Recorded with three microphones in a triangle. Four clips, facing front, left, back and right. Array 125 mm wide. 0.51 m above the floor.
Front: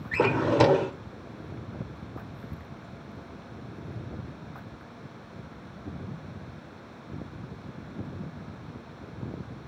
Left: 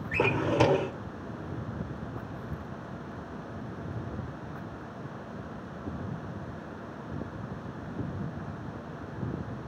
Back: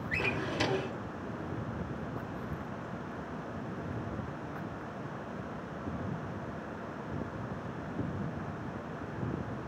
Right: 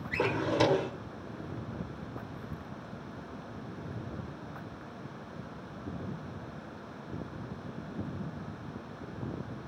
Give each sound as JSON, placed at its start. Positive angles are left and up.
{"t": 0.1, "sound": "a drawer", "azimuth_deg": 10, "distance_m": 0.9}